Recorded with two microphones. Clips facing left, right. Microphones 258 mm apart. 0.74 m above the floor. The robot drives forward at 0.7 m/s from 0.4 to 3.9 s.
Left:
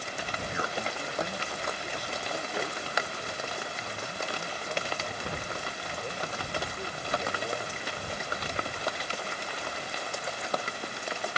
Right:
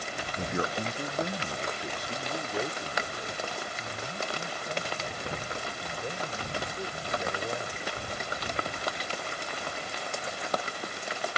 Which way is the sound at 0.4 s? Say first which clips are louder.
Right 5 dB; 45° right (ahead or behind).